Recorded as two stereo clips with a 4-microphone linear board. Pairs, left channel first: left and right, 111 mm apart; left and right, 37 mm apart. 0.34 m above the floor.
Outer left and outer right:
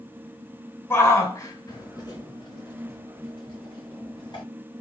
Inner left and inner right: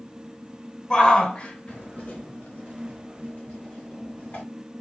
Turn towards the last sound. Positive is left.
turn(degrees=45)  # may be behind; listen again after turning